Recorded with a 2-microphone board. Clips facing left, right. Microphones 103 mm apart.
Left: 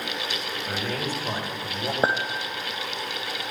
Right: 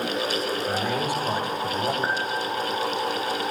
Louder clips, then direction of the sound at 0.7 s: Right 1 dB; 10° right (ahead or behind).